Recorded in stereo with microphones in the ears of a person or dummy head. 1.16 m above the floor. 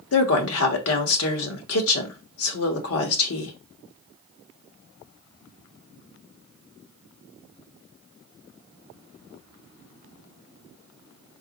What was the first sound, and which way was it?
A woman speaking, 70° left (ahead or behind).